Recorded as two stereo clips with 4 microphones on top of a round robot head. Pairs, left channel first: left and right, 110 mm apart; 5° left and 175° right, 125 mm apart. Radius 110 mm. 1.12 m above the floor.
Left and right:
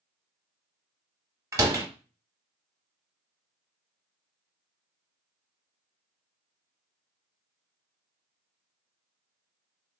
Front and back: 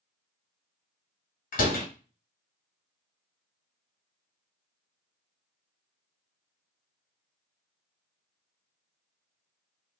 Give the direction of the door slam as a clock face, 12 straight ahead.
1 o'clock.